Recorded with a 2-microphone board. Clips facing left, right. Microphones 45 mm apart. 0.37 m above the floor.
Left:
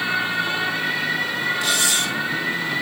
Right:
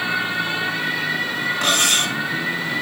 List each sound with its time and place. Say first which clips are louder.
1.6 s cutlery clinking: right 2 dB; 55° right (ahead or behind), 2 m